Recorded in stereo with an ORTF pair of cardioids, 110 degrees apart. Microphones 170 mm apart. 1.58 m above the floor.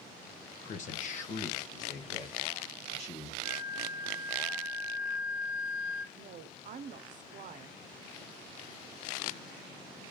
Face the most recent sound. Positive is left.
turn(degrees=-50)